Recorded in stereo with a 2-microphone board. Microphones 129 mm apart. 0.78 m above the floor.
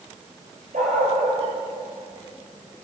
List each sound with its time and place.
0.7 s a dog barking: 80° right, 8.5 m